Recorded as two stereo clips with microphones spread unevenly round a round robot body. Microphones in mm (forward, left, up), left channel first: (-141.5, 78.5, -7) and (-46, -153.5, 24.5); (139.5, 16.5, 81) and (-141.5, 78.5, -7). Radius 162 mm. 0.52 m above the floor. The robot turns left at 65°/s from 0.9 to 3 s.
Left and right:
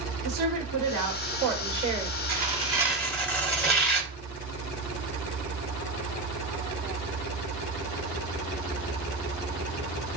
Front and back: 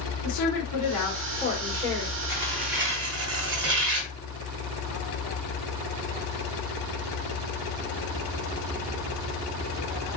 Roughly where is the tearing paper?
Behind right.